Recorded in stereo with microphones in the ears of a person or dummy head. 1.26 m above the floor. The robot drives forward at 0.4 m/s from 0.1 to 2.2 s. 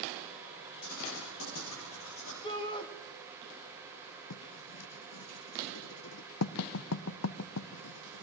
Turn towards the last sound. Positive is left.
turn(degrees=80)